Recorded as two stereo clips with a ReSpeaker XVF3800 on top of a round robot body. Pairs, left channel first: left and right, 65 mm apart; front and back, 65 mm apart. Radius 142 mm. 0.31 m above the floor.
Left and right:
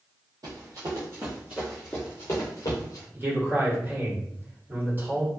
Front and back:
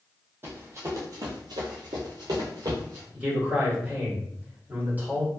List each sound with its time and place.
0.4 s running footsteps: 125° right, 0.9 m; by 3.0 s 125° left, 0.9 m
3.1 s a man speaking: 125° right, 1.7 m